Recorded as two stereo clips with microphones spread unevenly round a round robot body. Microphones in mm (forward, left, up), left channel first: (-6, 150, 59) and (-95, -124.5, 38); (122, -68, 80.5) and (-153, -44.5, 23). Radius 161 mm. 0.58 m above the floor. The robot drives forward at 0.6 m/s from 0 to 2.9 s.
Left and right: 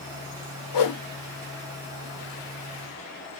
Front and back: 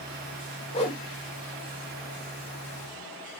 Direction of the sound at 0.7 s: 65° left.